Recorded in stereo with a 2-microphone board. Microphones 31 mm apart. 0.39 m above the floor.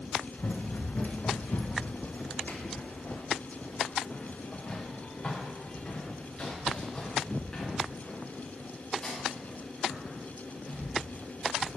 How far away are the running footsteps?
About 1.1 m.